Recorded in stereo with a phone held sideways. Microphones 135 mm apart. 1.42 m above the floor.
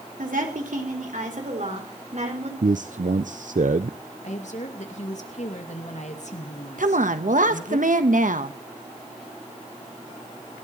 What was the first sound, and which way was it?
A woman speaking, 85° right.